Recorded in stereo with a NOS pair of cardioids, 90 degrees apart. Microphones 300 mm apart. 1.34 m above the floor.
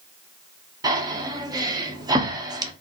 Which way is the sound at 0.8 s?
15° right.